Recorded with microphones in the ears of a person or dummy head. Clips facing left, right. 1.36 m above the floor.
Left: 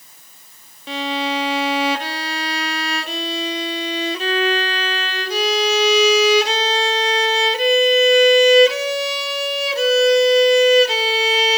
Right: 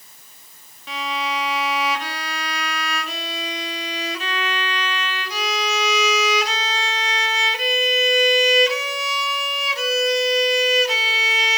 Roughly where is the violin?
Left.